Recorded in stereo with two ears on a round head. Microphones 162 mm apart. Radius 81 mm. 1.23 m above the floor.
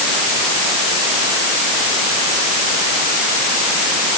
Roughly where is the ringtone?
I don't hear a ringtone.